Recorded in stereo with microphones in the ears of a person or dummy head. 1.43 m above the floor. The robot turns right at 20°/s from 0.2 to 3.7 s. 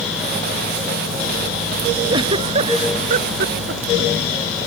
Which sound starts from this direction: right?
A giggle, at 2.1 s.